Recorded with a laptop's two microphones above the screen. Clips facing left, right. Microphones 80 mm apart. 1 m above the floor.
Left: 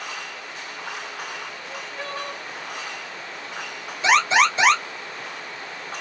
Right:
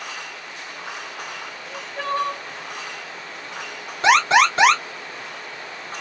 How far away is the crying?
About 2.5 m.